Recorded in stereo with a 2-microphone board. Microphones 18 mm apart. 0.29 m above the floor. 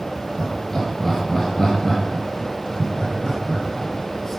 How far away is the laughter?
About 4.5 m.